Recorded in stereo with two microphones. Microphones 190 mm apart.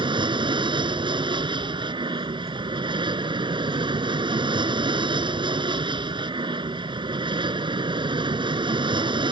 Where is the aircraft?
25° right (ahead or behind).